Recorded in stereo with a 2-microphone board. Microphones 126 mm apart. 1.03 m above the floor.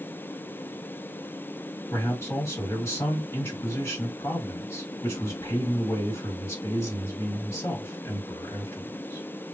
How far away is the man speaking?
About 1.5 m.